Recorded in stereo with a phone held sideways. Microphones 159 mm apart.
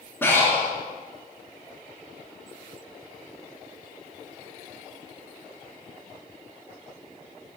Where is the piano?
No piano in this recording.